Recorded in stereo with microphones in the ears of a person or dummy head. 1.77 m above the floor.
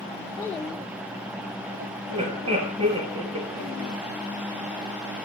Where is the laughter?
30° right (ahead or behind), 3.5 m.